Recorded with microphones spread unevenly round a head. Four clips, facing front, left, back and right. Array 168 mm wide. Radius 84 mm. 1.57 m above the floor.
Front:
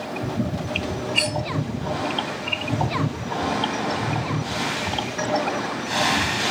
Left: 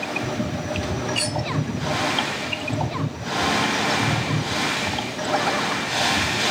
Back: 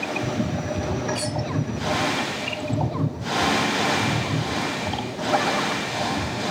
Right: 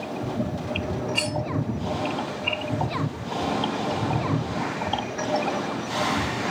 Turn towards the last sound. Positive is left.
turn(degrees=-120)